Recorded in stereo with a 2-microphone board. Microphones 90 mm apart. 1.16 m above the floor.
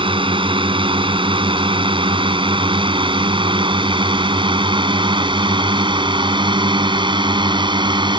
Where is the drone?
70° right (ahead or behind); by 8.2 s 60° right (ahead or behind).